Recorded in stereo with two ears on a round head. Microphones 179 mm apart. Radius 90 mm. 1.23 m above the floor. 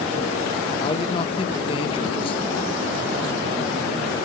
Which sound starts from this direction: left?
A man speaking, at 0.8 s.